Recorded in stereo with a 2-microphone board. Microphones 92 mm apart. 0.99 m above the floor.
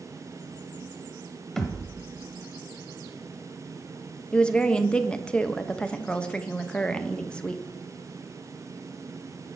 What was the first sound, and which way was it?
A thud, 5° left (ahead or behind).